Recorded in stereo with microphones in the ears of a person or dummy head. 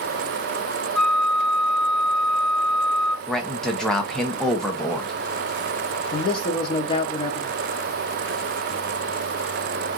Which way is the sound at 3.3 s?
Centre (ahead or behind).